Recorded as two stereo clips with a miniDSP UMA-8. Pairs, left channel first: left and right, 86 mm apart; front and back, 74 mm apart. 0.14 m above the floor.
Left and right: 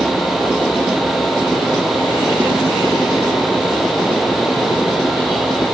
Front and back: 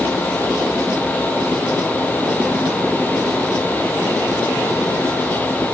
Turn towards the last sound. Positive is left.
No sound to turn to.